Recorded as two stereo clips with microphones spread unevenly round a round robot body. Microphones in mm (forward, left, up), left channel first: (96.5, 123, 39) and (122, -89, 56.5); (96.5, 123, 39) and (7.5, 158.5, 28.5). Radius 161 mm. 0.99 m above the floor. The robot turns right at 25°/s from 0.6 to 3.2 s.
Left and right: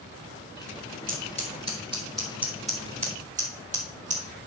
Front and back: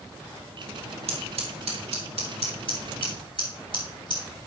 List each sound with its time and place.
1.1 s scissors: 160° left, 2.5 m; by 4.2 s 150° right, 2.5 m